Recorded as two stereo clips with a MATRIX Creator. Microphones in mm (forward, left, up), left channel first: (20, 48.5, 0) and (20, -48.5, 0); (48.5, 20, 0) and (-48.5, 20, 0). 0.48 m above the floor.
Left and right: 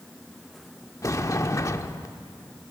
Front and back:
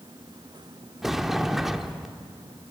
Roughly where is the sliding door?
Left.